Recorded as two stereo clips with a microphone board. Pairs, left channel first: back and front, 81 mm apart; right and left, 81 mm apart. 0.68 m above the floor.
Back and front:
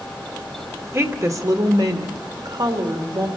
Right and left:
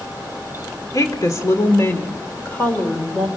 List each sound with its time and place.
0.9 s a woman speaking: 50° right, 1.9 m; by 3.3 s 15° right, 3 m